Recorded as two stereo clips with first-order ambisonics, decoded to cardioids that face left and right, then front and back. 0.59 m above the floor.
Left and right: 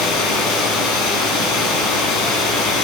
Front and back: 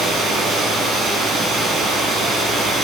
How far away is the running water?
About 10 m.